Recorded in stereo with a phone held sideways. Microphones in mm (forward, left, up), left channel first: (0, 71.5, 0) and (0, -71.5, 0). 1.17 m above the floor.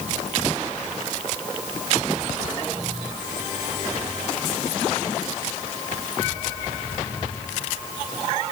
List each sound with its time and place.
Only background noise.